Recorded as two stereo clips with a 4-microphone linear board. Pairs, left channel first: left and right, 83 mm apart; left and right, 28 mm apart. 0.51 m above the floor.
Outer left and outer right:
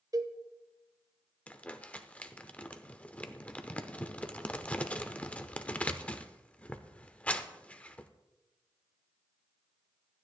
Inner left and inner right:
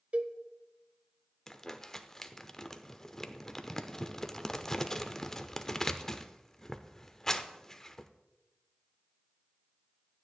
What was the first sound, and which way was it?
A cowbell, 40° right (ahead or behind).